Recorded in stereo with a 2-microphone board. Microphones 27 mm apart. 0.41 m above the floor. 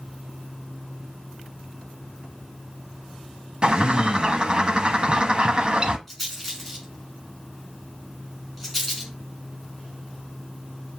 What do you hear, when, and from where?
3.6 s a bird: 35° right (ahead or behind), 0.6 m
6.1 s a rattle: 5° left (ahead or behind), 4 m